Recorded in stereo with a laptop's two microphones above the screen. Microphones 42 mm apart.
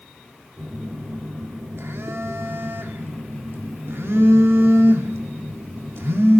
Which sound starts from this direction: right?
A phone buzzing, at 0.6 s.